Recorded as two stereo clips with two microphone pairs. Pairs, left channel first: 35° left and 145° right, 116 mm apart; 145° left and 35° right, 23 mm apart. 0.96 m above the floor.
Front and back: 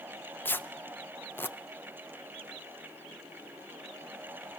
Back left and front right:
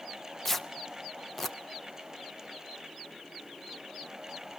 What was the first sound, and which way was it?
Tearing paper, 75° left.